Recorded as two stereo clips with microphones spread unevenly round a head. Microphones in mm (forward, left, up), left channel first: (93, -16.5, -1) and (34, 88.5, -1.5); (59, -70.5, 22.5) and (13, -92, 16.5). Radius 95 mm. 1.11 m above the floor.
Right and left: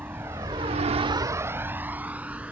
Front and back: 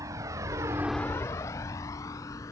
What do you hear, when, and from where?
0.0 s a vehicle: 160° right; by 2.5 s 40° left